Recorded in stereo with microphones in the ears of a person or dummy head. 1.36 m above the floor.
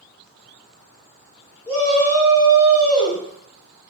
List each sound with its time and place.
1.7 s a shout: 15° left (ahead or behind), 1.0 m; by 3.2 s 50° left (ahead or behind), 1.2 m